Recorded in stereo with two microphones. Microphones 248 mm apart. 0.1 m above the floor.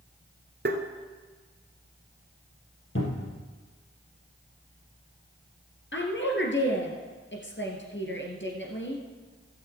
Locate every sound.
0.7 s tapping: 45° right (ahead or behind), 1.4 m
3.0 s a cupboard door: 55° left (ahead or behind), 3 m
5.9 s a woman speaking: 50° left (ahead or behind), 2 m